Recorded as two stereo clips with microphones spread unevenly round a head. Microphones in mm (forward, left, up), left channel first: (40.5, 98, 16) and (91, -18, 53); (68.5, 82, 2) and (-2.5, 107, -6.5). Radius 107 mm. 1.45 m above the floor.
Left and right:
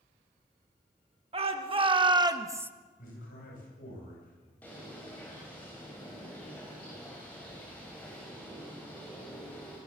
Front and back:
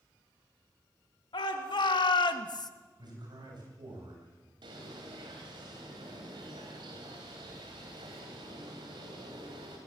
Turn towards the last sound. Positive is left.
turn(degrees=-155)